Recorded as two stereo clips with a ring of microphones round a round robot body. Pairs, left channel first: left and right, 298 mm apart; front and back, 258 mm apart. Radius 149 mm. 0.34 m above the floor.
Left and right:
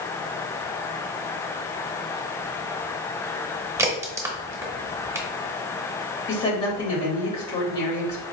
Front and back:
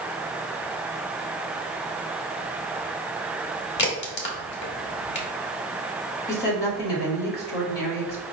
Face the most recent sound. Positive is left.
turn(degrees=25)